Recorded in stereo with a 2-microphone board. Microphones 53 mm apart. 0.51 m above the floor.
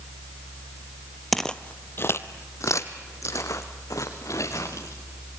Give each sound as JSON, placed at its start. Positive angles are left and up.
{"t": 1.3, "sound": "footsteps", "side_deg": 0, "distance_m": 0.7}